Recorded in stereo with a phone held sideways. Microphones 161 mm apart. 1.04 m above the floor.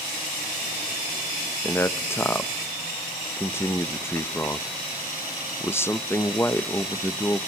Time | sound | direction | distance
1.6 | a man speaking | 15° left (ahead or behind) | 0.6 m